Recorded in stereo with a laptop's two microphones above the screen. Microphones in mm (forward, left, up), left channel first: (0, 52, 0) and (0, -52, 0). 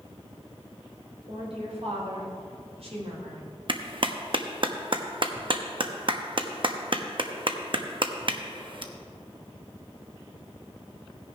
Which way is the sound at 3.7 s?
50° right (ahead or behind).